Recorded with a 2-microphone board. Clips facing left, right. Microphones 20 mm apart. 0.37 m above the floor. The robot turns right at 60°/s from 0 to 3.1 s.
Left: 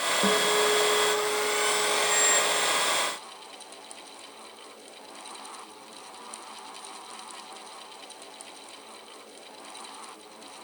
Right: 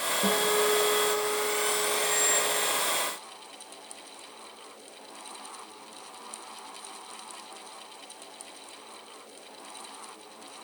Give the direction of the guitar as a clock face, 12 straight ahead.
10 o'clock.